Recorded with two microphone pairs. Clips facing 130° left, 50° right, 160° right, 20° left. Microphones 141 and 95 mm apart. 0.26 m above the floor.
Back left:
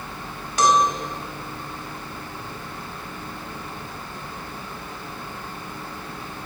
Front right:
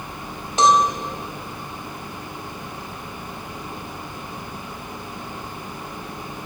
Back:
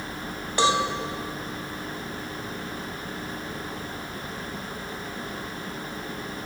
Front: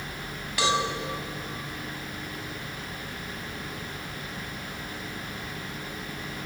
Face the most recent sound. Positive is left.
turn(degrees=-110)